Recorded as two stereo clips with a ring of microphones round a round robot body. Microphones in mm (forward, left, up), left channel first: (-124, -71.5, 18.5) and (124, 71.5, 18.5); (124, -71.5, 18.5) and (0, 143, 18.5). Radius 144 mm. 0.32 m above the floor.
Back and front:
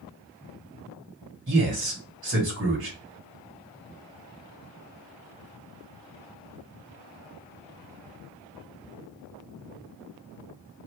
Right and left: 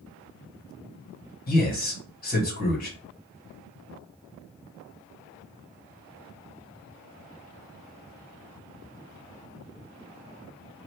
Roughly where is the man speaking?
Ahead.